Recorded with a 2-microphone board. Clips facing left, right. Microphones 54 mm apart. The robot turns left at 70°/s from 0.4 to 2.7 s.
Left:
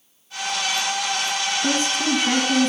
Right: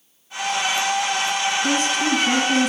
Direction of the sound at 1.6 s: 60° left.